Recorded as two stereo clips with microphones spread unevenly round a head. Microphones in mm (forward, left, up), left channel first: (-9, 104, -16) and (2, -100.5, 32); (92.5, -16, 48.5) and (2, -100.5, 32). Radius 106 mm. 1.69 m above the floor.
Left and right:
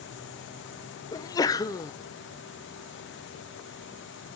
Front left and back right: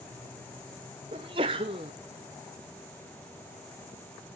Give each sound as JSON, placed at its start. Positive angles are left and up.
{"t": 1.1, "sound": "a sneeze", "azimuth_deg": 175, "distance_m": 0.7}